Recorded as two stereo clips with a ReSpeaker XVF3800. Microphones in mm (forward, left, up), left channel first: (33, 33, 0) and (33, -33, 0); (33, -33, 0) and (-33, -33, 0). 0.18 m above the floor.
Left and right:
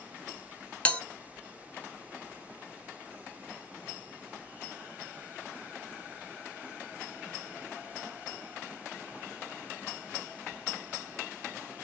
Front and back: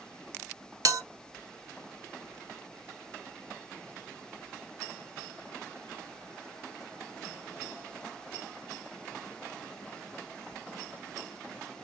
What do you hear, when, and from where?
0.8 s a bell: 160° left, 0.6 m